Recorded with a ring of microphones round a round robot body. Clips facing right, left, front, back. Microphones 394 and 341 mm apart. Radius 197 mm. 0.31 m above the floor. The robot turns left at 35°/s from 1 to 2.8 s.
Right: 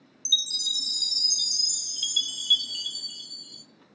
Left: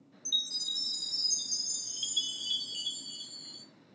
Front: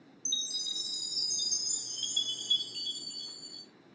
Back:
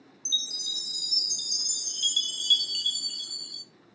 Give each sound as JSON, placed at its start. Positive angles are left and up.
{"t": 0.2, "sound": "a chime", "azimuth_deg": -100, "distance_m": 0.8}